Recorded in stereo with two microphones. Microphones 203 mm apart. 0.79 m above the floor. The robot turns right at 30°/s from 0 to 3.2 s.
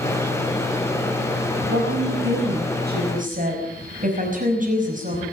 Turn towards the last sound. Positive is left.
turn(degrees=-40)